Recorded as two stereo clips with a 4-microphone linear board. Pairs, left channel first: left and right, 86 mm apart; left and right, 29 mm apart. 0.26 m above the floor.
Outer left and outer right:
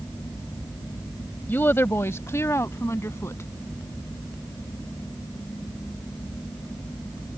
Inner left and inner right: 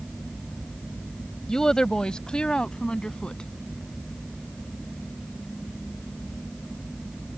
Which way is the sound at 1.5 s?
25° left (ahead or behind).